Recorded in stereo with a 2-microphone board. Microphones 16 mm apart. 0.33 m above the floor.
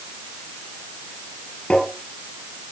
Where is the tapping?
80° left, 7 m.